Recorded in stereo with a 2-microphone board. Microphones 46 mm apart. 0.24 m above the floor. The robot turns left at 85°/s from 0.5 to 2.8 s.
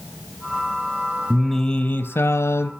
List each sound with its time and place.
1.3 s singing: 175° right, 1.6 m; by 2.7 s 65° left, 1.6 m